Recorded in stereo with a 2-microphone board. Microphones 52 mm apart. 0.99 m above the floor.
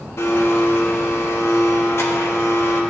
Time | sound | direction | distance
0.2 | a blender | 60° left (ahead or behind) | 1.4 m